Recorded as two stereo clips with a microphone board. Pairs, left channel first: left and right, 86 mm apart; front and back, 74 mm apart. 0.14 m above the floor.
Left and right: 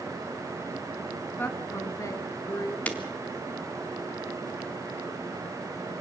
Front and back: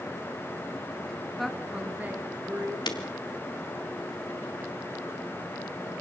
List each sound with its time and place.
1.4 s a woman speaking: 85° left, 1.5 m; by 2.8 s 125° left, 3 m
2.9 s breaking glass: 15° left, 2 m